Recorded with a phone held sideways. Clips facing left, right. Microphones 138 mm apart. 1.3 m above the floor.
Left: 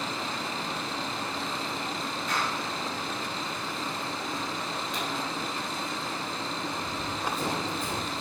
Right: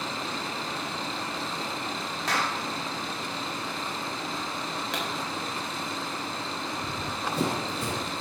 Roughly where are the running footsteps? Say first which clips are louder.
Even; right.